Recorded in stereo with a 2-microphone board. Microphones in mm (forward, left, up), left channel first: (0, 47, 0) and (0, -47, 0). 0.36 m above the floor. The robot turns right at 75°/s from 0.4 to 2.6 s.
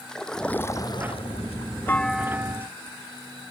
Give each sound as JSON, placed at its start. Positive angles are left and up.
{"t": 0.1, "sound": "a splash", "azimuth_deg": 5}
{"t": 1.9, "sound": "a clunk", "azimuth_deg": 160}